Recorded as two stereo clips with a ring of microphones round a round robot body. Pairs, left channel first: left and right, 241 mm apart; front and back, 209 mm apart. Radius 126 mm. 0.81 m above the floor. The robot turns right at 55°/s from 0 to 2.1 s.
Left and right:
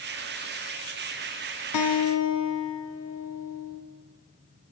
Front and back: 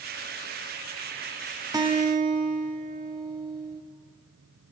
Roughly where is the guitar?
Left.